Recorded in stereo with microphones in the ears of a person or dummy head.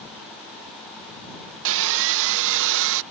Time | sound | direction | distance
1.6 | sawing | 70° right (ahead or behind) | ?